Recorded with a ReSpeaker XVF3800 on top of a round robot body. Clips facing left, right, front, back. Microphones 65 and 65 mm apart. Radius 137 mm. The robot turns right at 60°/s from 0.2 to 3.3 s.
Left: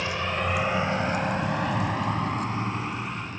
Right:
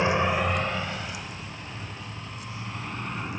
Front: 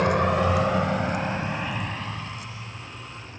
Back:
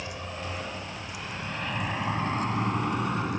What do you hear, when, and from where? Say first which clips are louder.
0.0 s a vehicle: right 4 dB, front 16 dB; 30° right; by 3.4 s 170° right